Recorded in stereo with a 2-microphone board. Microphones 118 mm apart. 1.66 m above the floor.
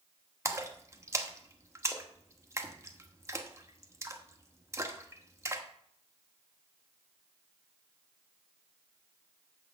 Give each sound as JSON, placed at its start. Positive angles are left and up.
{"t": 0.5, "sound": "a splash", "side_deg": -25, "distance_m": 1.1}